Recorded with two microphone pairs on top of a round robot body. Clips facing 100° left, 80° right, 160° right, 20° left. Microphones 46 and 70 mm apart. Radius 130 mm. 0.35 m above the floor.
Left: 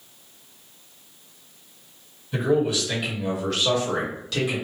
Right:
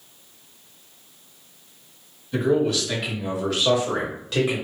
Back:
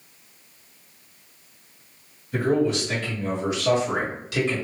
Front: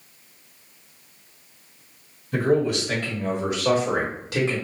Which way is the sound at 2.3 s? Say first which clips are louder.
Right 1 dB, front 1 dB; 35° left.